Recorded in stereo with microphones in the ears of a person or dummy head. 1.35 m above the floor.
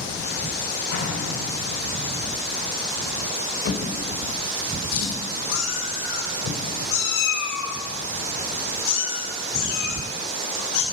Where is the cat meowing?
75° left (ahead or behind), 2.5 m.